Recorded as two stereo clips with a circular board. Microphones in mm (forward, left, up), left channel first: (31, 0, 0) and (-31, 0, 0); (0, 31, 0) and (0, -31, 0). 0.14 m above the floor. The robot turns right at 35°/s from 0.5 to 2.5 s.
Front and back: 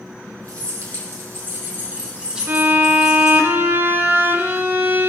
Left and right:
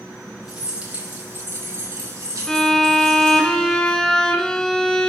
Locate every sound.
0.5 s keys jangling: 170° right, 3.5 m; by 3.5 s 100° right, 3.5 m
2.5 s a violin: 165° left, 1.1 m